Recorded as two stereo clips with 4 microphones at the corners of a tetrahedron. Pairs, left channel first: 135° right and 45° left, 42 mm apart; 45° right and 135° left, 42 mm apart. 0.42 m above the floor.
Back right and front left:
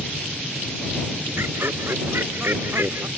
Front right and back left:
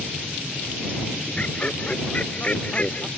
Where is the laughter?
15° left.